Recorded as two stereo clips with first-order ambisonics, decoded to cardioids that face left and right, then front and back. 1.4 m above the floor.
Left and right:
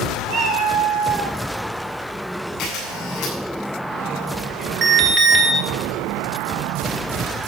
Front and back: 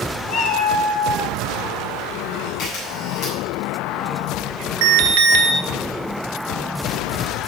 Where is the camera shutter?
45° left, 7.5 m.